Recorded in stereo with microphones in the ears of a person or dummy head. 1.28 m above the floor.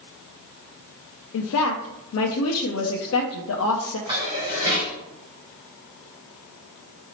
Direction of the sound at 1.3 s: 70° left (ahead or behind).